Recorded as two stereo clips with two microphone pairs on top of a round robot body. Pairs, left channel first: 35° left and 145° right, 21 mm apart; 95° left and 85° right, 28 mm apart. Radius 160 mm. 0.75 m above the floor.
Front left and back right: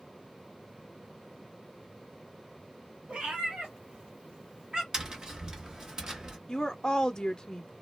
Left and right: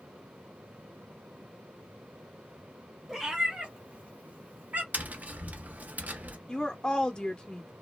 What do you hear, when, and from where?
3.1 s a cat meowing: 160° right, 1.1 m; by 4.8 s 90° right, 1.2 m
4.9 s tapping: 85° right, 0.9 m
6.5 s a woman speaking: 40° left, 0.6 m